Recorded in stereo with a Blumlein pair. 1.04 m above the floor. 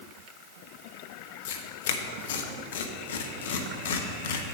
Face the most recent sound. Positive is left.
turn(degrees=60)